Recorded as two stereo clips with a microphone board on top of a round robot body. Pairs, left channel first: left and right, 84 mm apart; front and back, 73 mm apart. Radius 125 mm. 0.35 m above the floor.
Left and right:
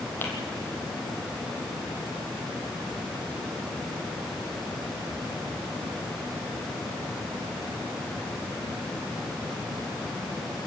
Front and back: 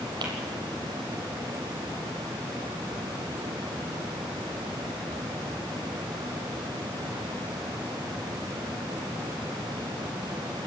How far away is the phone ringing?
I don't hear a phone ringing.